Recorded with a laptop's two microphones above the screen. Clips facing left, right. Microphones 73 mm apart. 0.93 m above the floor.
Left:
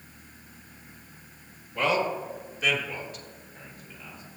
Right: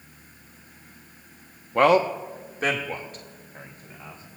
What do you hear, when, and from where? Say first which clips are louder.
1.8 s a man speaking: right 8 dB; 60° right (ahead or behind), 1.4 m; by 4.2 s 40° right (ahead or behind), 5 m